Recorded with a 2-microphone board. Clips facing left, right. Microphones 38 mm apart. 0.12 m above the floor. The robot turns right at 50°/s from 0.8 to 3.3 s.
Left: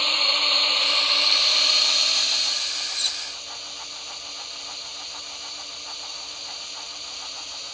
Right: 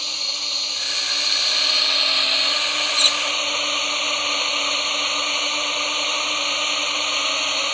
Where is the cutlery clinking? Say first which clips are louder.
Right 11 dB; 65° right (ahead or behind); by 3.2 s 55° right (ahead or behind).